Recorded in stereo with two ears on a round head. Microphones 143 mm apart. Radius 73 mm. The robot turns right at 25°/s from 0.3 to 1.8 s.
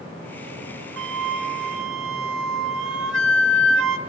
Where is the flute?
75° right (ahead or behind), 1.0 m; by 4.0 s 80° right, 1.0 m.